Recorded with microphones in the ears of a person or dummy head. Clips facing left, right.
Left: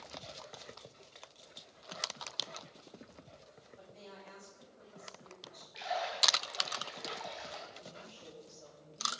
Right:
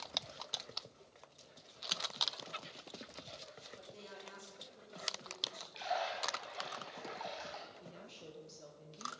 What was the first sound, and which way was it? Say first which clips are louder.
A woman speaking: left 2 dB; 55° right (ahead or behind).